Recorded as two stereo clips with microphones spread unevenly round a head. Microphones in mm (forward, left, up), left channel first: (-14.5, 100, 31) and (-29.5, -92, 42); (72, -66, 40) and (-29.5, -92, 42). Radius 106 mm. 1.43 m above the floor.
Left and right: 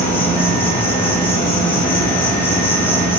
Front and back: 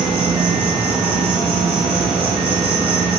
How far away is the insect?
About 3.5 m.